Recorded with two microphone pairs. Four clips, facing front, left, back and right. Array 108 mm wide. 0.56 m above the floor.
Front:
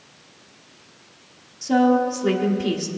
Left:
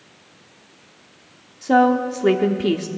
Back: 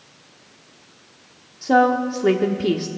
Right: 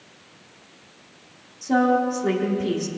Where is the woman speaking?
135° left, 1.2 m.